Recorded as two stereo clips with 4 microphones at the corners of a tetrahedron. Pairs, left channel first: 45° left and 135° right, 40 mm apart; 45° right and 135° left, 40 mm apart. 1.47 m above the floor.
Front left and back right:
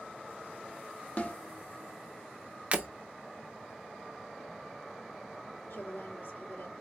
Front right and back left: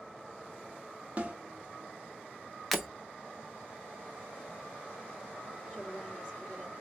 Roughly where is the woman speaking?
Ahead left.